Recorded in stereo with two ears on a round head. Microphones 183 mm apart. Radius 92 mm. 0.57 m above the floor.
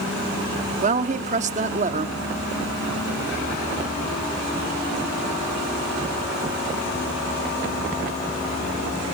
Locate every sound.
0.8 s a woman speaking: 35° right (ahead or behind), 0.9 m